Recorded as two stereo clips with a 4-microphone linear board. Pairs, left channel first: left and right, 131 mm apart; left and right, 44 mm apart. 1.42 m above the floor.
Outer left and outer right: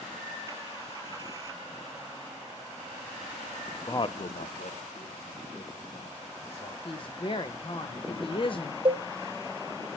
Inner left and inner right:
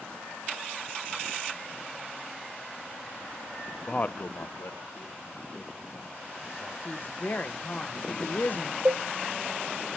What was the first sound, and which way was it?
A man speaking, 20° left (ahead or behind).